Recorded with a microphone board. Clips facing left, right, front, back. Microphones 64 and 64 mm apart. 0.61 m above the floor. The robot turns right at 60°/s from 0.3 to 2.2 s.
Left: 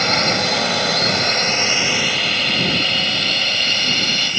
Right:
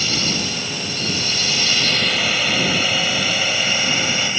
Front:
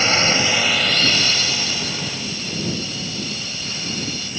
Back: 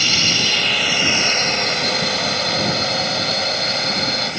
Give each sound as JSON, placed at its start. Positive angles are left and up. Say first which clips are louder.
{"t": 0.0, "sound": "a drone", "louder": "left 6 dB, front 3 dB", "azimuth_deg": 55}